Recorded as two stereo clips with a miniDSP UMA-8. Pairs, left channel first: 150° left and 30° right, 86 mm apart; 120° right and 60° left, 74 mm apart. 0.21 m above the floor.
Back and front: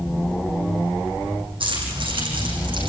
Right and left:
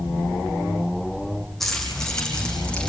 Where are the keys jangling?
35° right, 6.5 m; by 2.9 s 45° right, 7.5 m.